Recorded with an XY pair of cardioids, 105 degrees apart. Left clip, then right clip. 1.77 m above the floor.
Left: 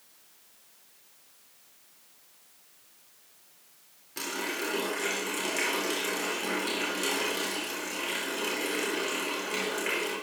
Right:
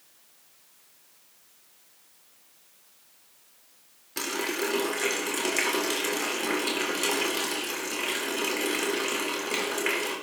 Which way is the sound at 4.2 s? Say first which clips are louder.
Right 3 dB; 40° right.